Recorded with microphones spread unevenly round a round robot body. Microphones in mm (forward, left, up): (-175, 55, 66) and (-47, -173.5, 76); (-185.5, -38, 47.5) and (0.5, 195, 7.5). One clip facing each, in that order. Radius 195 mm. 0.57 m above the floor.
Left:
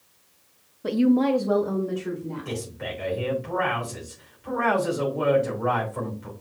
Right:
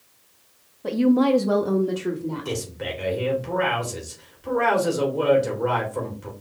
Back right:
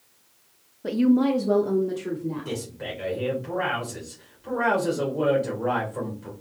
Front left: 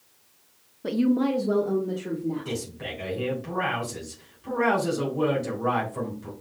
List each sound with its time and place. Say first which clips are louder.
0.8 s a woman speaking: right 1 dB, back right 3 dB; 110° left, 0.6 m; by 2.6 s 50° right, 1.3 m
2.5 s a man speaking: right 3 dB, back right 1 dB; 25° right, 2.5 m